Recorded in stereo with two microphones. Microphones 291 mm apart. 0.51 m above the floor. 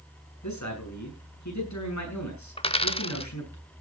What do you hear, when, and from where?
0.4 s a man speaking: 70° left (ahead or behind), 8 m
2.6 s a dropped coin: 20° left (ahead or behind), 0.7 m